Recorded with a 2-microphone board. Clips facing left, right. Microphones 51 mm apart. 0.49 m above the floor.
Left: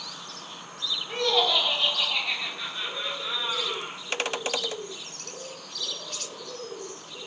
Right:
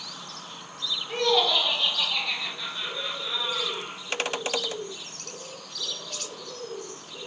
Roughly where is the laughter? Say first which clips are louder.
Right 1 dB; centre.